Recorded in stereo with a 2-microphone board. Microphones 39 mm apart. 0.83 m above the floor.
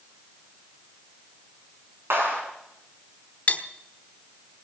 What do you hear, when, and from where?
2.1 s a clap: 85° right, 7 m
3.5 s cutlery clinking: 40° left (ahead or behind), 1.2 m